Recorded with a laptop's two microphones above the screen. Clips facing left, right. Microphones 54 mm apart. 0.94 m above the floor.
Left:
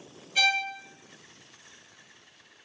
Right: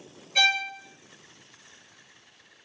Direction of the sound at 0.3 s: 65° right (ahead or behind).